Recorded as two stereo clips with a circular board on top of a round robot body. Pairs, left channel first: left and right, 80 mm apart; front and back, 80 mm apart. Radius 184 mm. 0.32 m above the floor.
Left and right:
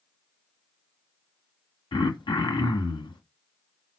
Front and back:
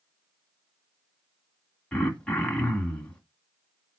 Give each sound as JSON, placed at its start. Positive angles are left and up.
{"t": 1.9, "sound": "throat clearing", "azimuth_deg": 80, "distance_m": 2.0}